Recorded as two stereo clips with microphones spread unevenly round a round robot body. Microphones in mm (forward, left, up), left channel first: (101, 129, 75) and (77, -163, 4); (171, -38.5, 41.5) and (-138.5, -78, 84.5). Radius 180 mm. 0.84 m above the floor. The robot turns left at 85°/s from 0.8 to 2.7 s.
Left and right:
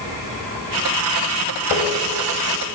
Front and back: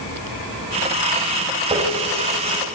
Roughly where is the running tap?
Behind left.